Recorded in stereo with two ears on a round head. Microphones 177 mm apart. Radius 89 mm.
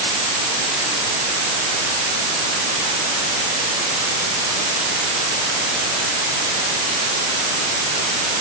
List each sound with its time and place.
Only background noise.